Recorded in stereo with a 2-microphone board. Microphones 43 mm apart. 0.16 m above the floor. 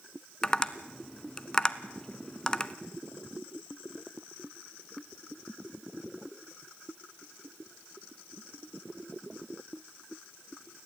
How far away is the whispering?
I don't hear whispering.